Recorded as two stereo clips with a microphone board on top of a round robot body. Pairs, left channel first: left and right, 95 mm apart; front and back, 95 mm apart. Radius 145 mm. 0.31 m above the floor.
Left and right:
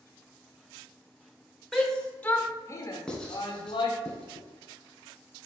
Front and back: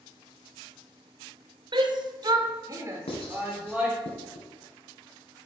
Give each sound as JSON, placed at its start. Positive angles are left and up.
{"t": 1.7, "sound": "a shout", "azimuth_deg": 175, "distance_m": 1.5}
{"t": 3.1, "sound": "writing", "azimuth_deg": 10, "distance_m": 1.6}